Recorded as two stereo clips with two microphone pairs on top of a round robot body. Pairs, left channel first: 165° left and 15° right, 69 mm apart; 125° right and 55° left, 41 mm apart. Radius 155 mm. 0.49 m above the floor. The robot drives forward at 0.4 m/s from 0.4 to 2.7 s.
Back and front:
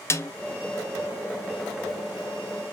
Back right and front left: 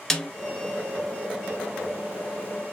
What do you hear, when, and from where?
0.1 s a snare drum: 165° left, 1.1 m